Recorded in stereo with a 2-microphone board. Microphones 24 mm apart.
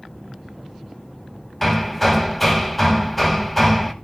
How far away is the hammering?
About 0.8 m.